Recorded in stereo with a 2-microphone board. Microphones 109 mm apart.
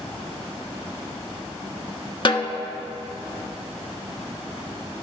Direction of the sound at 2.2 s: 50° left (ahead or behind).